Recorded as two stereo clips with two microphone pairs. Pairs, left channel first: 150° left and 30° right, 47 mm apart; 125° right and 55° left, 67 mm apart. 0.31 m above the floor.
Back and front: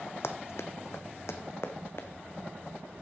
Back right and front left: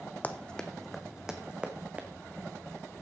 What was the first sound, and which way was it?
Running footsteps, 170° left.